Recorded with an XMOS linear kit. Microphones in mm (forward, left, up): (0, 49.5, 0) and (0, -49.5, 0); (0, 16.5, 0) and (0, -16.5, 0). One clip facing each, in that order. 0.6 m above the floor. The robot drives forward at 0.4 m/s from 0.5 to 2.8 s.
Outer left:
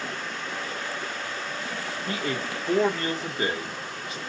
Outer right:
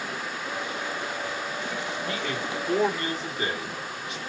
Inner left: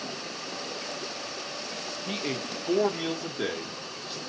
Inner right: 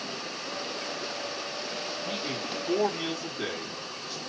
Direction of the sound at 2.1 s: 40° left (ahead or behind).